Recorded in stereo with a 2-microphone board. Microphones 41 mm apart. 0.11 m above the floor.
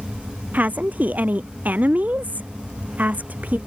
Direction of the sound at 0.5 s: 45° right (ahead or behind).